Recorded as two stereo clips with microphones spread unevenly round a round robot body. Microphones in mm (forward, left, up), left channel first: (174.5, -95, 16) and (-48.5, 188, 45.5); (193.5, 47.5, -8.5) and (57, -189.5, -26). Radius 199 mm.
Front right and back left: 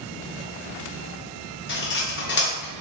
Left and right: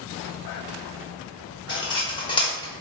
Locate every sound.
1.7 s cutlery clinking: 10° right, 0.8 m